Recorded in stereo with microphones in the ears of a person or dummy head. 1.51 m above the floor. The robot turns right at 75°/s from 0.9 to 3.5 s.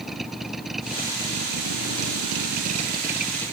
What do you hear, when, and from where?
0.0 s a vehicle: 175° left; by 3.5 s 10° left